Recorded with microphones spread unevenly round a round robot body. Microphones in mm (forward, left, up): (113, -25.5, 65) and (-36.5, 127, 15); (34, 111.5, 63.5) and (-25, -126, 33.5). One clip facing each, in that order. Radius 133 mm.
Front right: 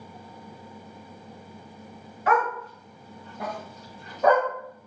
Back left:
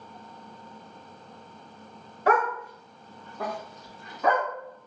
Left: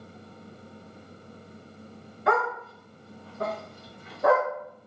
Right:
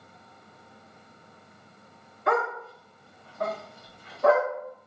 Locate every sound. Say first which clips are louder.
2.3 s a dog barking: back left 1 dB, even; 80° left, 1.2 m; by 4.5 s straight ahead, 3 m